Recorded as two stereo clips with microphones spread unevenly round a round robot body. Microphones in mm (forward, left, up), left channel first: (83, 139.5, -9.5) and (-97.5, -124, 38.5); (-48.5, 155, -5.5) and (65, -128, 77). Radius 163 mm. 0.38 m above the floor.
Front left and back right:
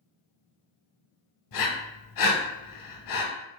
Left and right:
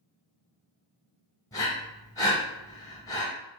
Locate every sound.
1.5 s breathing: 35° left, 0.8 m